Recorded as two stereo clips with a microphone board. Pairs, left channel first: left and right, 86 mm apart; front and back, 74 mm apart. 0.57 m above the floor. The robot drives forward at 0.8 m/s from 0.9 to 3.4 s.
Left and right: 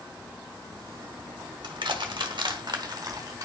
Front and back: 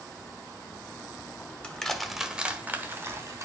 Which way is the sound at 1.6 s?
70° right.